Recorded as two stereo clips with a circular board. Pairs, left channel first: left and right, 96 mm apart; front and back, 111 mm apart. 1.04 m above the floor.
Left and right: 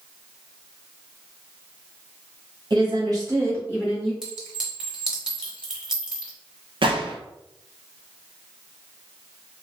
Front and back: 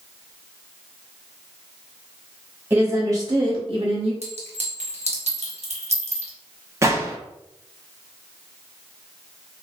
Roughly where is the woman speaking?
Right.